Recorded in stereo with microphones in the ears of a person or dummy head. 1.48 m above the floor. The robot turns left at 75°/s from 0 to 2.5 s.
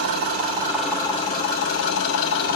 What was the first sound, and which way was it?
An engine running, 125° right.